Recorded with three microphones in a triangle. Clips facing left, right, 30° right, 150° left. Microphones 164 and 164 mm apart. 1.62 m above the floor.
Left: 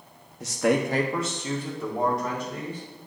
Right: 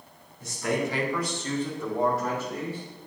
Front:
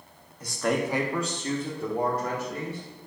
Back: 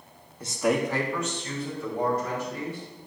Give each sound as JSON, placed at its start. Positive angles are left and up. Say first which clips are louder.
{"t": 0.4, "sound": "a man speaking", "louder": "left 5 dB, back 2 dB", "azimuth_deg": 90, "distance_m": 0.9}